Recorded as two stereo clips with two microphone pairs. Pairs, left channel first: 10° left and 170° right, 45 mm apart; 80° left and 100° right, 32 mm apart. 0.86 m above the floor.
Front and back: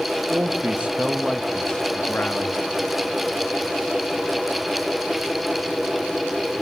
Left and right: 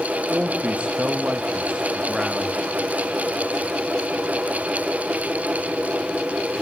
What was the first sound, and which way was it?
A man speaking, 150° right.